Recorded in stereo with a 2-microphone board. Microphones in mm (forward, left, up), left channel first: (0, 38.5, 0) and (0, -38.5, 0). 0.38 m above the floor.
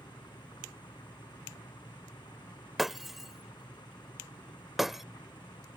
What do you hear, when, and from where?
0.0 s an engine running: 80° left
2.8 s breaking glass: 5° right (ahead or behind)